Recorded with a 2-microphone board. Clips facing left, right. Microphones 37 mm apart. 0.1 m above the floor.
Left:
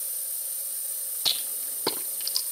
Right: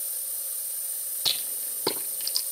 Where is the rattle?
5° left (ahead or behind), 2.5 m.